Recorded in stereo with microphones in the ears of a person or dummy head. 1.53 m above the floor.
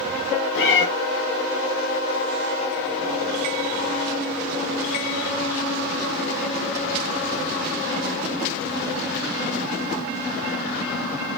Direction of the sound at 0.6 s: 65° left (ahead or behind).